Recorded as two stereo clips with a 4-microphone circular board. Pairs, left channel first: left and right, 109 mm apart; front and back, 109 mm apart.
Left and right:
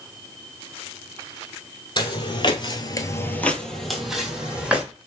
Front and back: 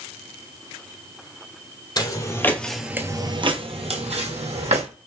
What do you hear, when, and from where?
2.0 s footsteps: 50° left, 0.9 m; by 4.9 s 170° right, 1.6 m